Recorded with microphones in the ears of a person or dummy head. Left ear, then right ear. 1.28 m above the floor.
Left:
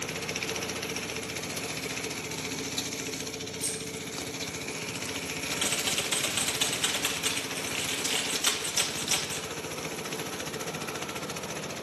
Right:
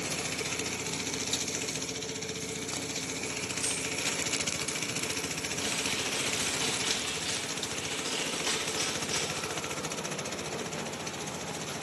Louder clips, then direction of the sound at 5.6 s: Left 3 dB; 45° left (ahead or behind).